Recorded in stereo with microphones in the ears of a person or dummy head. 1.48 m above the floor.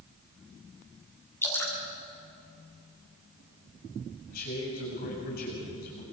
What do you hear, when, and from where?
1.4 s dripping: 15° left (ahead or behind), 5.5 m
4.3 s a man speaking: 55° left (ahead or behind), 7.5 m